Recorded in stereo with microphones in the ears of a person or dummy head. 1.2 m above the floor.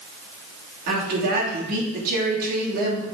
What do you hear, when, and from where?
0.9 s a woman speaking: 50° right (ahead or behind), 2.5 m